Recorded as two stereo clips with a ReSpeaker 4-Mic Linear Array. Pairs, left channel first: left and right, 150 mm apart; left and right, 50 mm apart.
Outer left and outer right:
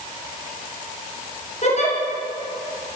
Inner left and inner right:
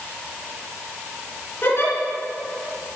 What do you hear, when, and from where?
1.6 s a giggle: 50° left (ahead or behind), 3 m